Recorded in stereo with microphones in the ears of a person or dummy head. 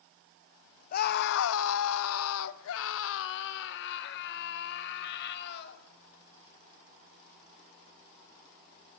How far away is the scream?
About 1.4 m.